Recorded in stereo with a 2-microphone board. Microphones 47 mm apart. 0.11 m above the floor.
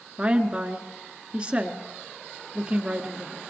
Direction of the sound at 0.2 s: 20° right (ahead or behind).